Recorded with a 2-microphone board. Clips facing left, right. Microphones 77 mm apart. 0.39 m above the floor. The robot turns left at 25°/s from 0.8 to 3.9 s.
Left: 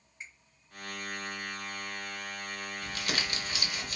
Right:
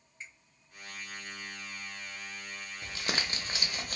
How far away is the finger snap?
About 1.5 m.